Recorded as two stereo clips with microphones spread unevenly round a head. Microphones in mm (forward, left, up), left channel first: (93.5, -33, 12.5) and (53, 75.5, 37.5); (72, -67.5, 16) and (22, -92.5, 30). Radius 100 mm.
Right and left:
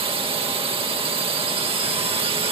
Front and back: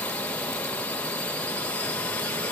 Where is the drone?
75° left.